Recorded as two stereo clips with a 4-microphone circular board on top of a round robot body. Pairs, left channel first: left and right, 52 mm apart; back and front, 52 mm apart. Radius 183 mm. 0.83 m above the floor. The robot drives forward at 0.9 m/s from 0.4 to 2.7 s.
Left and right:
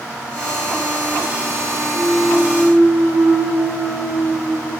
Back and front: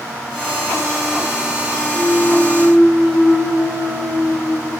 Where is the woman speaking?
I don't hear a woman speaking.